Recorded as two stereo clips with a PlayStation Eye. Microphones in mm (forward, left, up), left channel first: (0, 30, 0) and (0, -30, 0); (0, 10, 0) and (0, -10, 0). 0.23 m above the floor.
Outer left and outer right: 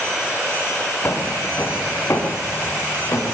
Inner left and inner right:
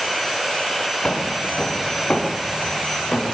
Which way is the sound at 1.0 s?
35° left (ahead or behind).